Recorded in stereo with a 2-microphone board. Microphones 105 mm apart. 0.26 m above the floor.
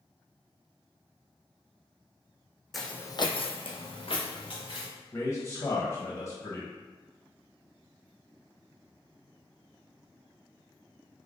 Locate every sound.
2.7 s footsteps: centre (ahead or behind), 0.7 m; by 4.9 s 55° left (ahead or behind), 2 m
5.1 s a man speaking: 30° left (ahead or behind), 1.0 m